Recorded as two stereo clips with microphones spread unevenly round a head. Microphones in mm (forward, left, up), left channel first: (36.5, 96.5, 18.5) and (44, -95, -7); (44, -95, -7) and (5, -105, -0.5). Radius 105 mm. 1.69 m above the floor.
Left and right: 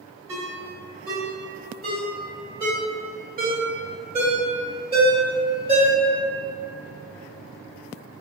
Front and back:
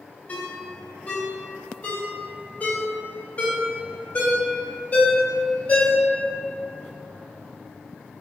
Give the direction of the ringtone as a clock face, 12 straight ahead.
1 o'clock.